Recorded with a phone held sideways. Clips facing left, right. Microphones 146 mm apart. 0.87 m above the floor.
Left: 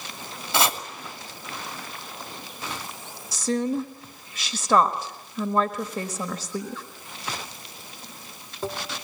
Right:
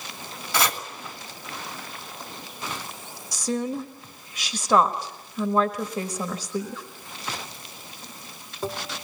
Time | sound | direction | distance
0.5 | chopping | 25° left (ahead or behind) | 2.5 m
3.3 | a woman speaking | 5° left (ahead or behind) | 1.4 m